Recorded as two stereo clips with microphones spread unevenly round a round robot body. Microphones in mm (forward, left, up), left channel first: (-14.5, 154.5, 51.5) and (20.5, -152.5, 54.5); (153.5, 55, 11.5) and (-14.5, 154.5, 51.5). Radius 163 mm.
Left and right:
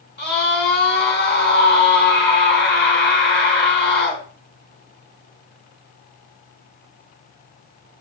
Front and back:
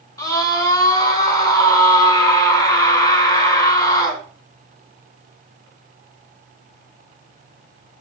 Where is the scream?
40° left, 4.5 m.